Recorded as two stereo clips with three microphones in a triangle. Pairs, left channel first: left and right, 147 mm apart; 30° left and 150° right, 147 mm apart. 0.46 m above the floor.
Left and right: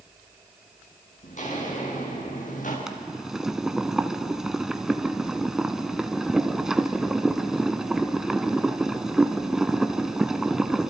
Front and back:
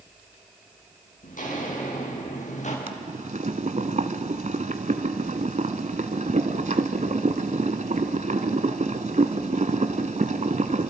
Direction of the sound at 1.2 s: 55° left.